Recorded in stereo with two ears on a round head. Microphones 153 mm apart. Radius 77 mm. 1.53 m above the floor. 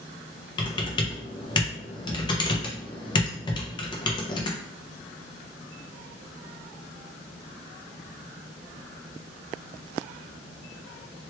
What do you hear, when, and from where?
0.6 s typing on a keyboard: 25° left (ahead or behind), 0.6 m